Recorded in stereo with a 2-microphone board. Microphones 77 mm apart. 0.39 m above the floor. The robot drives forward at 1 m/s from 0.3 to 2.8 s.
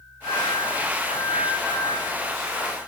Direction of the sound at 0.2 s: 80° left.